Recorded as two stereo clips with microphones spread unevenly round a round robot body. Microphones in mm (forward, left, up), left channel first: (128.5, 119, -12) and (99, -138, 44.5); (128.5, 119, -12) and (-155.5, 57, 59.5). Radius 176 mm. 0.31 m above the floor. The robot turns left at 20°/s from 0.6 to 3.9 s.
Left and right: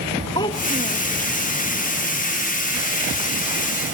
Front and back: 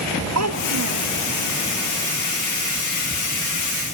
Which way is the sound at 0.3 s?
160° left.